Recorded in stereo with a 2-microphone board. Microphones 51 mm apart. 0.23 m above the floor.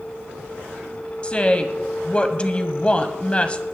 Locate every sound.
1.2 s a woman speaking: 25° left (ahead or behind), 1.1 m